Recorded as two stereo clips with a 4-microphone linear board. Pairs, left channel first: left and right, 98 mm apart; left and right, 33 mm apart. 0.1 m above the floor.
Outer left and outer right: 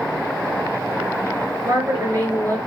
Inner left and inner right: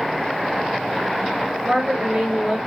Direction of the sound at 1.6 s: 30° right (ahead or behind).